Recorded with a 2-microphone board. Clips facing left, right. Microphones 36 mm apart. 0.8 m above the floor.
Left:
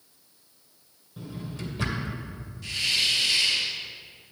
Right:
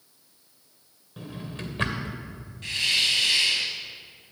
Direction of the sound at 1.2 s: 45° right (ahead or behind).